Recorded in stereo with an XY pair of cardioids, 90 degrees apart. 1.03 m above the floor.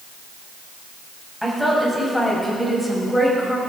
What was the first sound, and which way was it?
A woman speaking, 5° left.